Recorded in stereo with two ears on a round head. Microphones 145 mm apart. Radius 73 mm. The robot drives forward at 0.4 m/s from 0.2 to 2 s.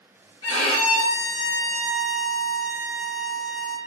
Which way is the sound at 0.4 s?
30° left (ahead or behind).